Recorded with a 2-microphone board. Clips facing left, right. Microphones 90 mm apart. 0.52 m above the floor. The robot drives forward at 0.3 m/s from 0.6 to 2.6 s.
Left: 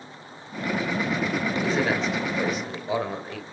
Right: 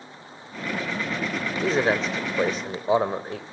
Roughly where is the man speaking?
Right.